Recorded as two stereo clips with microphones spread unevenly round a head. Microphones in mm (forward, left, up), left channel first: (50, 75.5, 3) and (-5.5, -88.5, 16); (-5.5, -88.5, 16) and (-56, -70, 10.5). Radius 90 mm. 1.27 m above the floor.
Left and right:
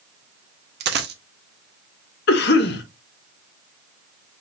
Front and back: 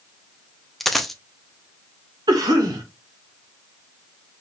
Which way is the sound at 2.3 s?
110° left.